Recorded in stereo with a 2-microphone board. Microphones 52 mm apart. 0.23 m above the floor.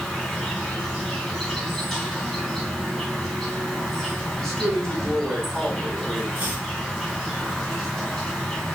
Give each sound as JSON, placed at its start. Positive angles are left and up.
{"t": 0.0, "sound": "an insect", "side_deg": 10, "distance_m": 2.5}
{"t": 4.4, "sound": "a man speaking", "side_deg": 20, "distance_m": 2.0}
{"t": 6.3, "sound": "chopping", "side_deg": -35, "distance_m": 2.5}